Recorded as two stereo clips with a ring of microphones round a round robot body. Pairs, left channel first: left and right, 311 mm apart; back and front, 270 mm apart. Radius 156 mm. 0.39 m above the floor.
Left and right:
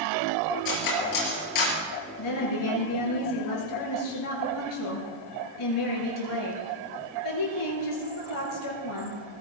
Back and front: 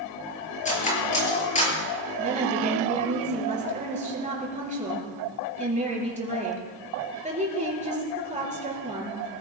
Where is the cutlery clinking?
115° left, 5 m.